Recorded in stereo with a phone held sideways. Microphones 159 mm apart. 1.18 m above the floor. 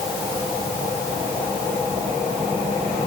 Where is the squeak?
No squeak in this recording.